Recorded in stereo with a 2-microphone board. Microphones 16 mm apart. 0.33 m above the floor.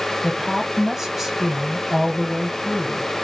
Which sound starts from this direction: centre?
A woman speaking, at 0.2 s.